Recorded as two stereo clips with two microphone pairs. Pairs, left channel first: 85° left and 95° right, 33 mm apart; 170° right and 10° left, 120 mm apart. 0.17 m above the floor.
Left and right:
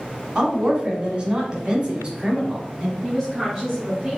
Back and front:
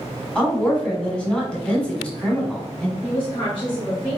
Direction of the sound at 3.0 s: 160° right.